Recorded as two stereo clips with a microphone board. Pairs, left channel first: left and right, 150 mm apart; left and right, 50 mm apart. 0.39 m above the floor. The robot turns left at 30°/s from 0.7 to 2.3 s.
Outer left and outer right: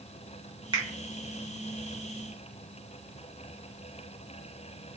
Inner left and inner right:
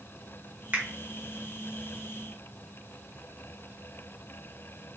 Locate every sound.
0.7 s a finger snap: 35° right (ahead or behind), 1.0 m